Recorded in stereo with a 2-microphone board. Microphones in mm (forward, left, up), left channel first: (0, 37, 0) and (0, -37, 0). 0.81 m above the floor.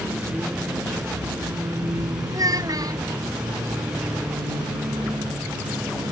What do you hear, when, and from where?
0.0 s a vehicle: 35° right (ahead or behind); by 6.1 s 75° right (ahead or behind)
2.3 s a child speaking: 50° right (ahead or behind)